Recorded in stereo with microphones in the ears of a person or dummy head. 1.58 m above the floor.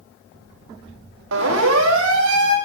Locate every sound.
1.3 s a siren: 80° right, 3 m; by 2.6 s 70° right (ahead or behind), 3.5 m